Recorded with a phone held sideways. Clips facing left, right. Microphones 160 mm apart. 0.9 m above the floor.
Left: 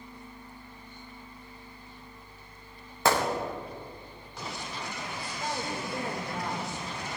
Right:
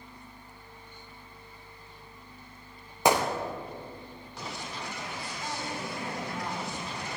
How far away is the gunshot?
About 1.1 m.